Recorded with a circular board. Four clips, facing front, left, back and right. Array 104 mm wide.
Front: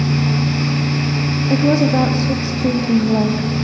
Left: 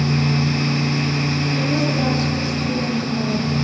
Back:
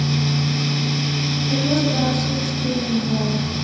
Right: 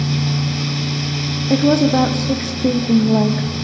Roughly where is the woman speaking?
Ahead right.